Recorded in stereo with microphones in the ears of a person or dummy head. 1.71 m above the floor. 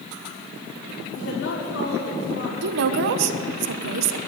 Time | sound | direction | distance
1.1 | a woman speaking | 80° left | 4.5 m
2.6 | a woman speaking | 55° right (ahead or behind) | 1.0 m